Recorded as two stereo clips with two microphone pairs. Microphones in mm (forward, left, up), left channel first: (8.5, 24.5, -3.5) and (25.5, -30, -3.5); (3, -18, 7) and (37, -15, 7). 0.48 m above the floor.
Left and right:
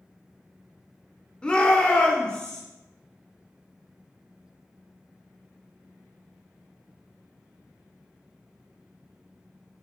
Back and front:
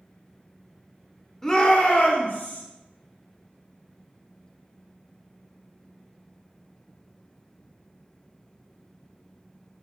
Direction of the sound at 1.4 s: 135° left.